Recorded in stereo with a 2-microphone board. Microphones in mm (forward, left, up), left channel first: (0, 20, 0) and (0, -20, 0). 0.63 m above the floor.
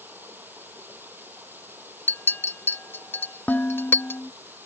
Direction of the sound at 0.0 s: 55° right (ahead or behind).